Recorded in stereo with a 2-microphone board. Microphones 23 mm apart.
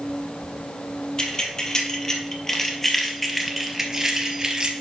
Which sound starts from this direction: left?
Keys jangling, at 1.2 s.